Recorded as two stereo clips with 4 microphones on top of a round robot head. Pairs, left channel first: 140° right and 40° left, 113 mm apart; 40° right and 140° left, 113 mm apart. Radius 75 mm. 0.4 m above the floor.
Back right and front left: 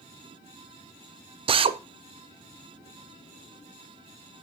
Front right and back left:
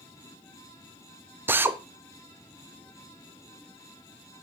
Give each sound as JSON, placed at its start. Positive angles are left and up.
{"t": 1.5, "sound": "a drill", "azimuth_deg": 70, "distance_m": 0.5}